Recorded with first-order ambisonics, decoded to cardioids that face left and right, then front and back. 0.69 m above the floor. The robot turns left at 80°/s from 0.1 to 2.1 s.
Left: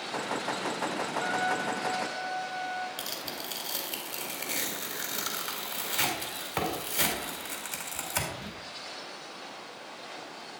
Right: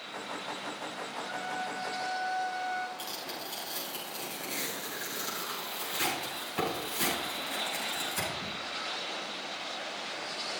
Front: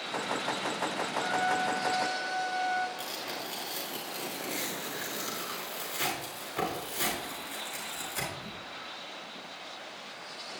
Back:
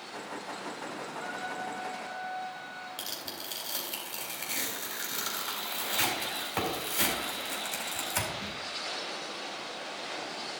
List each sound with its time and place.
1.1 s a trumpet: 75° left, 1.1 m; by 2.9 s 5° right, 1.1 m
3.0 s tearing paper: 120° left, 4 m